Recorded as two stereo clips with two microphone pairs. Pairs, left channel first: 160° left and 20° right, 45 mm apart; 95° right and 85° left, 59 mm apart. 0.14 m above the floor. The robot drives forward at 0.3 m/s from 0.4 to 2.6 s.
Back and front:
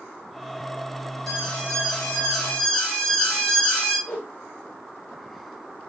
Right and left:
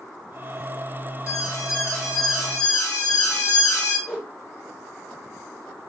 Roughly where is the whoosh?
Behind.